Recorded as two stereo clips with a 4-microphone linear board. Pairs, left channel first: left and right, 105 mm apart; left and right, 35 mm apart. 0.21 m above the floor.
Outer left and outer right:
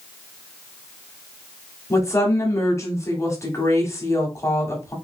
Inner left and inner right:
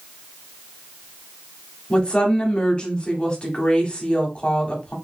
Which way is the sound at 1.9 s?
25° left (ahead or behind).